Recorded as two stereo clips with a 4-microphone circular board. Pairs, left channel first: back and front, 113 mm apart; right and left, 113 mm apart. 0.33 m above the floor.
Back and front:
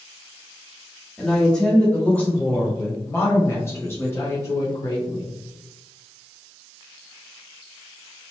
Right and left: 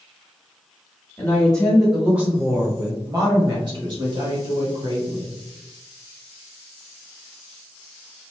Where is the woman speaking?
95° right, 1.0 m; by 5.4 s 115° left, 2 m.